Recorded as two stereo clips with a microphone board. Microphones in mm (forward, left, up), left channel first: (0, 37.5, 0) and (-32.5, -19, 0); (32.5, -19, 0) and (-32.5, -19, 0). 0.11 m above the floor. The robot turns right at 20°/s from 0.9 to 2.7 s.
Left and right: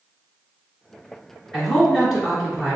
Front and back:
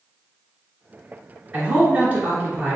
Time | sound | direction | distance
1.5 | a man speaking | 140° left | 1.8 m